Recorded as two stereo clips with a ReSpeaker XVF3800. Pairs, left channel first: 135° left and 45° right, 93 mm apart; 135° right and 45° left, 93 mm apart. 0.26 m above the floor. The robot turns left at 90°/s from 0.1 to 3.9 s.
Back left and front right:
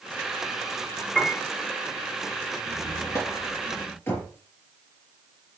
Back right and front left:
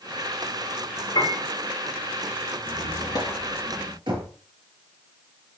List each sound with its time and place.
1.1 s a piano: 135° right, 5.5 m; by 1.4 s 160° right, 5.5 m
2.6 s a squeak: 135° right, 3 m; by 4.0 s 110° left, 3 m
4.1 s knocking: 70° left, 4.5 m